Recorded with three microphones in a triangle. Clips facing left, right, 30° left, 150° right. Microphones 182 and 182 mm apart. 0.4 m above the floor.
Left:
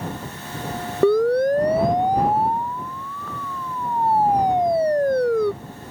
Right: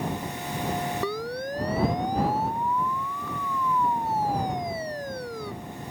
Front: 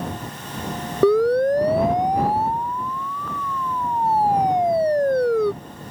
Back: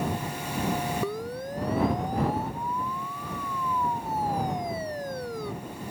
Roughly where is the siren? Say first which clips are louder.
Left 14 dB, front 16 dB; ahead left.